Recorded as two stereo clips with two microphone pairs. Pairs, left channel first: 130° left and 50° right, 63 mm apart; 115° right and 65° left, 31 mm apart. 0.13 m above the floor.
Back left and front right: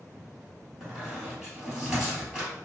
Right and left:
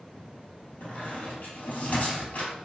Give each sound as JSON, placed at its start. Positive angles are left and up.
{"t": 0.8, "sound": "a squeak", "azimuth_deg": -130, "distance_m": 1.7}